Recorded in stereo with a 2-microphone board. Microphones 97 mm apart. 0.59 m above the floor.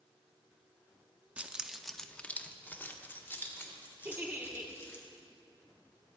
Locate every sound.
1.4 s keys jangling: 15° right (ahead or behind), 0.6 m; by 5.0 s 25° left (ahead or behind), 2.5 m
4.0 s a giggle: 20° right (ahead or behind), 1.2 m